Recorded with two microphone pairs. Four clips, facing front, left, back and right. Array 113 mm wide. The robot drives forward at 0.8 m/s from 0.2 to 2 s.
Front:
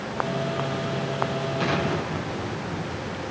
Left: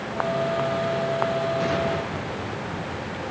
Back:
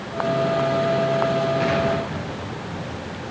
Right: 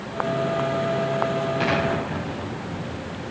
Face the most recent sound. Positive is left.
turn(degrees=-95)